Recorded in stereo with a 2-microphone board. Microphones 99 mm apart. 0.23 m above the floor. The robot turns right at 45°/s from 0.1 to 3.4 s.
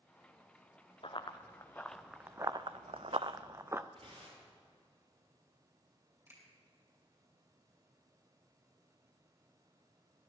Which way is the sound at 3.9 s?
70° right (ahead or behind).